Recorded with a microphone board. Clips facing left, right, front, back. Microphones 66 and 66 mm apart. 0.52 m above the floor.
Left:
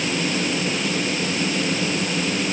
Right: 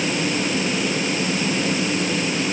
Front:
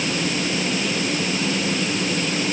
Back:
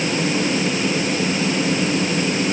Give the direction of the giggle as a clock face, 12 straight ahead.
I don't hear a giggle.